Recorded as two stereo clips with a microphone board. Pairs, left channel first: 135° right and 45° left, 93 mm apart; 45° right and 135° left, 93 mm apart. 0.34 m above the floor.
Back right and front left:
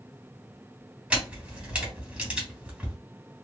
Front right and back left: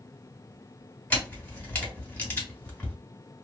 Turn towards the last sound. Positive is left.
turn(degrees=-10)